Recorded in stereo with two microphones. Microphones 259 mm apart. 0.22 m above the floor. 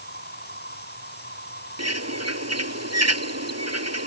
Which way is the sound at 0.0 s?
40° left (ahead or behind).